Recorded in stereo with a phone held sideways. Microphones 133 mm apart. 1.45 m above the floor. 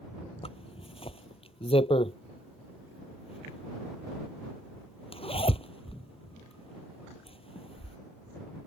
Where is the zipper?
45° left (ahead or behind).